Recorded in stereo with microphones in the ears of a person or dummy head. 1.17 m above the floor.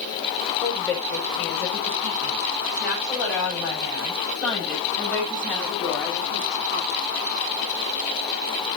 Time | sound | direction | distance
0.6 | a woman speaking | 10° left (ahead or behind) | 6 m